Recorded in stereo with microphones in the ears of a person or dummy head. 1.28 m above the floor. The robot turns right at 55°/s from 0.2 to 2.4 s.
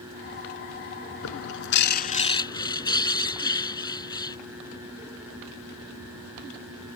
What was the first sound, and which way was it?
A bird, 90° left.